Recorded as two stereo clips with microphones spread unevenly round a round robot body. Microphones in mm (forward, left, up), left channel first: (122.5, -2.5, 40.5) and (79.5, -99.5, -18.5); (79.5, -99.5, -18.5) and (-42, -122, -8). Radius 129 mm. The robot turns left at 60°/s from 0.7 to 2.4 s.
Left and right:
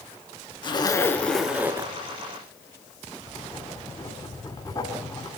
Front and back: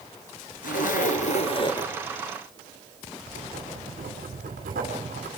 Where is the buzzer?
No buzzer in this recording.